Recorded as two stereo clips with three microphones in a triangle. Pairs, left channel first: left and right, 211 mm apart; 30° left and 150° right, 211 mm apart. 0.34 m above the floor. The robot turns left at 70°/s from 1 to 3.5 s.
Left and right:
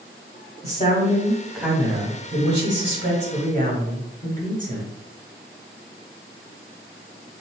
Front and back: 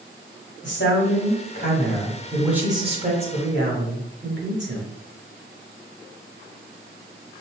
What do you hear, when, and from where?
0.6 s a man speaking: 40° left, 1.7 m; by 4.9 s 135° right, 1.7 m